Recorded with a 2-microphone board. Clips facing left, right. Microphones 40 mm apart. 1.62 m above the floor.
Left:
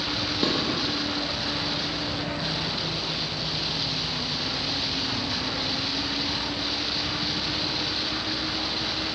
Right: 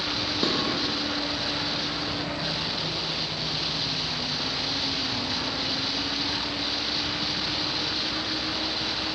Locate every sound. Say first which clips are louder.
0.4 s dishes clattering: left 1 dB; centre (ahead or behind), 0.9 m